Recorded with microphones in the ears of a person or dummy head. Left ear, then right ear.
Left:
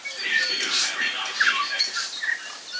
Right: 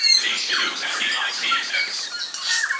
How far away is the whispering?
About 1.0 m.